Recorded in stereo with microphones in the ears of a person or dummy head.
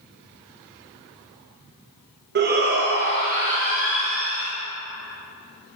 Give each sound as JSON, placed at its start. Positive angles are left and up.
{"t": 2.4, "sound": "a shout", "side_deg": -50, "distance_m": 0.8}